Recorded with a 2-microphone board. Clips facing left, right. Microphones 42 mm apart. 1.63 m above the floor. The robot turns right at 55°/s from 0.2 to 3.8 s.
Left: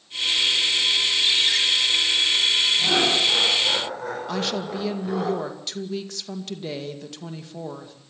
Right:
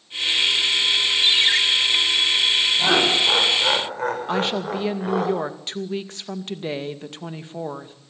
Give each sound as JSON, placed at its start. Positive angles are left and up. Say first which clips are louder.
{"t": 1.2, "sound": "a ringtone", "louder": "right 5 dB", "side_deg": -50, "distance_m": 3.0}
{"t": 2.8, "sound": "laughter", "louder": "right 2 dB", "azimuth_deg": -105, "distance_m": 7.0}
{"t": 4.3, "sound": "a woman speaking", "louder": "right 4 dB", "side_deg": -30, "distance_m": 2.0}